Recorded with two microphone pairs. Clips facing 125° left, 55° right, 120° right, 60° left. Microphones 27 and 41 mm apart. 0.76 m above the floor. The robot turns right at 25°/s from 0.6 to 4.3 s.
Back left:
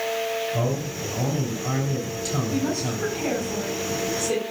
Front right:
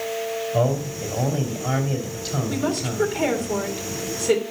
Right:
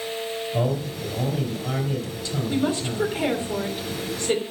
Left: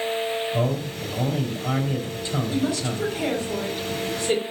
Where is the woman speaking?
70° right, 2.5 m; by 4.4 s 25° right, 2.5 m.